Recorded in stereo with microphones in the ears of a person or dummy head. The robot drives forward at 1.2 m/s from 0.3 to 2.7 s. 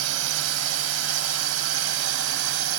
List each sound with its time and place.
0.0 s a drone: 85° right; by 2.8 s 75° right (ahead or behind)